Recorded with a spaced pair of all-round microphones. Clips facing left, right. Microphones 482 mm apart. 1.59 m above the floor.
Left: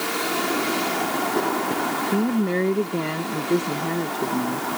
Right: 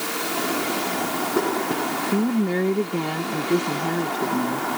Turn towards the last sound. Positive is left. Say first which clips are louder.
# even
turn(degrees=-5)  # may be behind; listen again after turning